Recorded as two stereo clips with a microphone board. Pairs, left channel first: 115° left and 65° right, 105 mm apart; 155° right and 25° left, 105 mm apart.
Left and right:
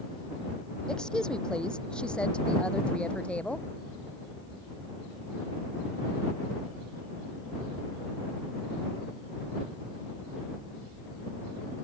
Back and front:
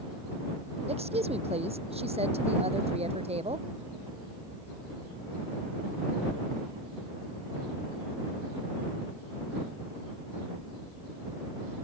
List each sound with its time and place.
0.9 s a woman speaking: 30° left; by 3.7 s 35° left